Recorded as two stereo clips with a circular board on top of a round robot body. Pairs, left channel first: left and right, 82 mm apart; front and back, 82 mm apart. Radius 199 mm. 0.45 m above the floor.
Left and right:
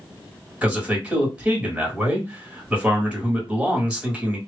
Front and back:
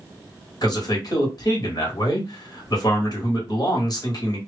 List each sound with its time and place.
0.6 s a man speaking: 15° right, 2 m